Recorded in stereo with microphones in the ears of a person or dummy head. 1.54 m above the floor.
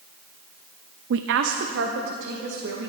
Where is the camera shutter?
No camera shutter in this recording.